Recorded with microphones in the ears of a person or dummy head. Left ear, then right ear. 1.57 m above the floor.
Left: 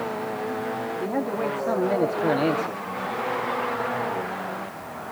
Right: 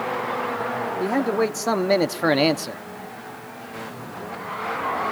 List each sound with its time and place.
1.0 s a man speaking: 80° right, 1.3 m; by 2.8 s 40° right (ahead or behind), 1.1 m